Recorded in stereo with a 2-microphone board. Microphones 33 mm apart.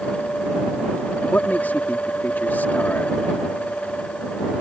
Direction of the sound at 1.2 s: 70° left (ahead or behind).